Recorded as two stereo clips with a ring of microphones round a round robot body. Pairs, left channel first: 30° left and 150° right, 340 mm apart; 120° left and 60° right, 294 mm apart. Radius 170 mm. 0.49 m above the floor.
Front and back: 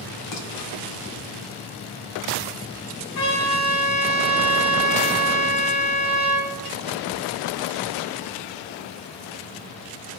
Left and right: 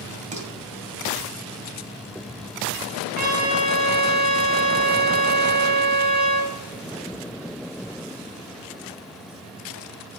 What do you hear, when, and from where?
0.3 s dishes clattering: 5° left, 2.5 m
3.1 s a trumpet: 5° right, 3.5 m